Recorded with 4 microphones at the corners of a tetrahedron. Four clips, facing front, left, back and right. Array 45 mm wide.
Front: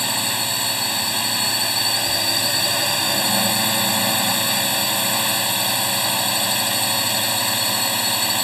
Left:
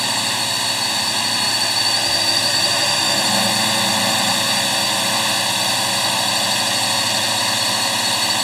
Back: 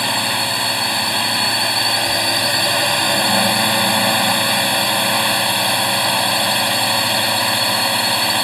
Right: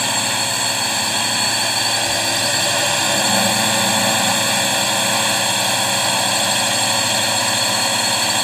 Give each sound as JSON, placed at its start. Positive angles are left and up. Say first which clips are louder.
{"t": 0.0, "sound": "a drone", "louder": "right 1 dB, back 5 dB", "azimuth_deg": -165}